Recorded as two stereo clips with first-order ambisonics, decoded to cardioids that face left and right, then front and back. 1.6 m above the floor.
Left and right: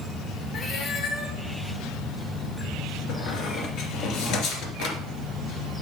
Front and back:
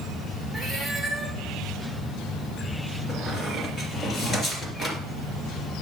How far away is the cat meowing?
About 1.5 m.